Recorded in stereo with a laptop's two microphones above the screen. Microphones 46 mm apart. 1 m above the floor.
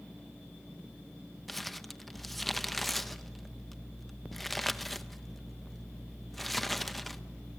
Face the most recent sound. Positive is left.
turn(degrees=0)  # may be behind; listen again after turning